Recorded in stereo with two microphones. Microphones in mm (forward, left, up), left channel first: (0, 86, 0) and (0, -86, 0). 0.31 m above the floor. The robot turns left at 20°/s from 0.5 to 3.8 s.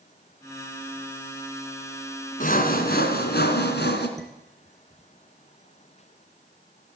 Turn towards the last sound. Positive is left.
turn(degrees=0)  # may be behind; listen again after turning